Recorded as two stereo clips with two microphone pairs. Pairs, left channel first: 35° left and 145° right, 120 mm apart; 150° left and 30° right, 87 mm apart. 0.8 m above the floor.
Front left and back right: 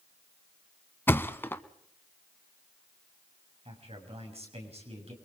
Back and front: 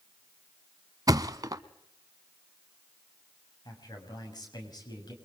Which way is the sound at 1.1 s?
25° right.